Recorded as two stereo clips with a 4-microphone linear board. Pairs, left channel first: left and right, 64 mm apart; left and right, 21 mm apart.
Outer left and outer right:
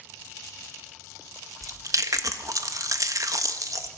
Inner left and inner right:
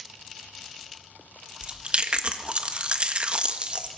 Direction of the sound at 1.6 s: 65° right (ahead or behind).